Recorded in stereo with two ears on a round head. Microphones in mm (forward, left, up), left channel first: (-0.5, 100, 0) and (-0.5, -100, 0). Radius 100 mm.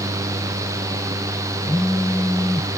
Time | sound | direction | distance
1.7 | a phone buzzing | 5° left (ahead or behind) | ?